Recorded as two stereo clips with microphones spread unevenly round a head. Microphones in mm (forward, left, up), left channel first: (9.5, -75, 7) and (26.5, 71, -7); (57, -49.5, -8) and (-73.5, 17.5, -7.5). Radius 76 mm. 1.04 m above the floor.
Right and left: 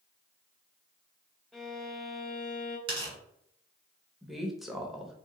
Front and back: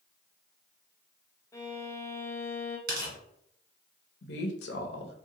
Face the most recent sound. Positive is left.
turn(degrees=-5)